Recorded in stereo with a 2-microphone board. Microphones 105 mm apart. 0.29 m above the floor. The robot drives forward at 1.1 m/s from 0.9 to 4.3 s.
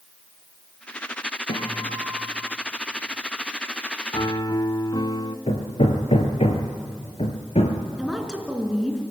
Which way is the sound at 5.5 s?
75° left (ahead or behind).